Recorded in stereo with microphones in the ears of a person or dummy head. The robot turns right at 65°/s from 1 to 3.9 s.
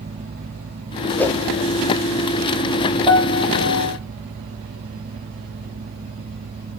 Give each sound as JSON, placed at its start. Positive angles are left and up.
{"t": 1.2, "sound": "a whoosh", "side_deg": 10, "distance_m": 1.0}
{"t": 3.1, "sound": "a piano", "azimuth_deg": 10, "distance_m": 4.0}